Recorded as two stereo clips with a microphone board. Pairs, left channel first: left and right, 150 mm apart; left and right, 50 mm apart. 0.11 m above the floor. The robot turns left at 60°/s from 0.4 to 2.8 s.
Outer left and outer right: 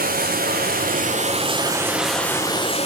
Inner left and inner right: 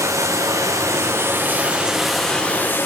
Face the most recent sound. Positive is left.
turn(degrees=140)